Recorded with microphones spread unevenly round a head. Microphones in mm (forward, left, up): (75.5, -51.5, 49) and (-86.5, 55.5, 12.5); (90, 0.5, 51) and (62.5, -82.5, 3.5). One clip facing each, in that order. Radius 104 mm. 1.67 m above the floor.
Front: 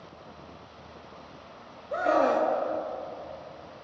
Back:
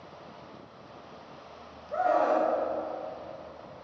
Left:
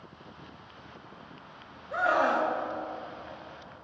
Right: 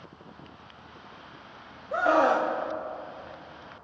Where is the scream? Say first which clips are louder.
Front 1 dB, right 4 dB; 30° right, 0.8 m.